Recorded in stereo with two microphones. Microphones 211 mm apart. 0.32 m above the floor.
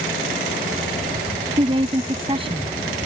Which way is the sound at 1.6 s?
25° right (ahead or behind).